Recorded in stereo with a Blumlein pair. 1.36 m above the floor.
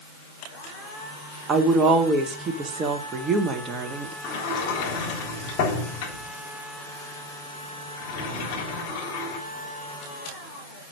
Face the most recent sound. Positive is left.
turn(degrees=40)